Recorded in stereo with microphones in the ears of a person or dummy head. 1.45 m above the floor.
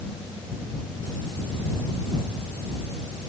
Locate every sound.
Only background noise.